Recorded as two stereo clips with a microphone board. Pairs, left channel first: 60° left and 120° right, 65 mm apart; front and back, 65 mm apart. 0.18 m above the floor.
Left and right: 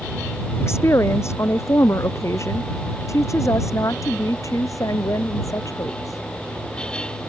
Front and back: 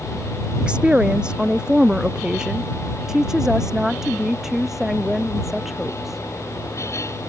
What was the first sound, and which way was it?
A woman speaking, 105° left.